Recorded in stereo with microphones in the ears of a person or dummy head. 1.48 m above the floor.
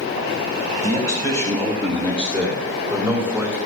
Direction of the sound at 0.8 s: 15° left (ahead or behind).